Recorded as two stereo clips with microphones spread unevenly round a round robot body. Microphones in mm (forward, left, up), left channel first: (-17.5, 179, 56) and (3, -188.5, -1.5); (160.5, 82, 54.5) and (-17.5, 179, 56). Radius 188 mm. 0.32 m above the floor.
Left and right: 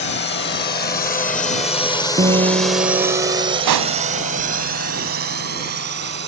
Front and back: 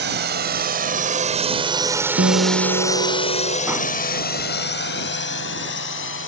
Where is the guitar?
160° right.